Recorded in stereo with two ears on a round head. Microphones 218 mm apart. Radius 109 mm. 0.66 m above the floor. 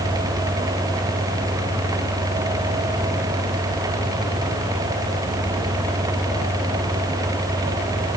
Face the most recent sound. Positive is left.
No sound to turn to.